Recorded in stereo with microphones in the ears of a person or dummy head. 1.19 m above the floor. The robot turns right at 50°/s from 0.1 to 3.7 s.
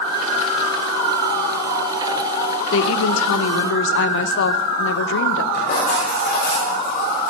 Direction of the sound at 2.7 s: 65° left.